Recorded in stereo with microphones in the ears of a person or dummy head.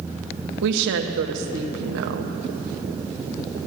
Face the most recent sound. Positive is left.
turn(degrees=-70)  # may be behind; listen again after turning